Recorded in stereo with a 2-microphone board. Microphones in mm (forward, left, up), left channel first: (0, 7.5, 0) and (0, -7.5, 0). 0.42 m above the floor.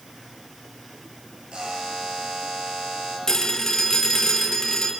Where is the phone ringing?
50° left (ahead or behind), 4 m.